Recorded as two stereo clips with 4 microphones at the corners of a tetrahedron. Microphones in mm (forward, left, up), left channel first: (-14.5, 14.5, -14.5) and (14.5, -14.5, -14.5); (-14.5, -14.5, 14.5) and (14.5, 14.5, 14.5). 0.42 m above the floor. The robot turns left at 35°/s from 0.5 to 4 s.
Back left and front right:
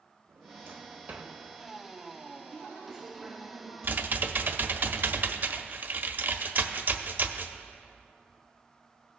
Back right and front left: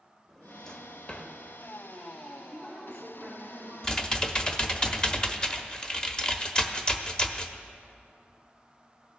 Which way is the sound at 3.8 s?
65° right.